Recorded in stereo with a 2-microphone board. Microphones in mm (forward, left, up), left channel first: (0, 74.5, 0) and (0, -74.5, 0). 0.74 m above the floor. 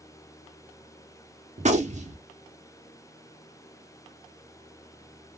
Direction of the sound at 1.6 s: 50° right (ahead or behind).